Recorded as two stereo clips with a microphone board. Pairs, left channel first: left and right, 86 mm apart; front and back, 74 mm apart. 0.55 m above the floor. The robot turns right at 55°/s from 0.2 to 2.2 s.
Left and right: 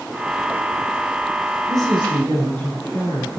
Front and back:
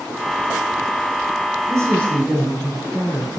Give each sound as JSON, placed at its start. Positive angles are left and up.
{"t": 1.7, "sound": "a man speaking", "azimuth_deg": -135, "distance_m": 5.0}